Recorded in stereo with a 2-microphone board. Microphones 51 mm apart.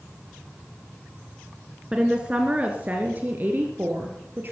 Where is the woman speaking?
15° right (ahead or behind), 1.5 m; by 4.5 s 40° right (ahead or behind), 2.5 m.